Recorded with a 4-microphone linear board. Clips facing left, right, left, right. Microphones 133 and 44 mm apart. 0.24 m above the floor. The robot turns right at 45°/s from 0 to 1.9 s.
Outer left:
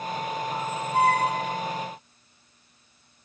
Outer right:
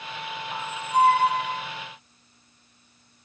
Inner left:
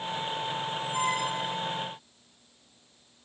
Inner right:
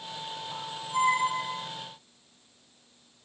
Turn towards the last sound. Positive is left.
turn(degrees=-115)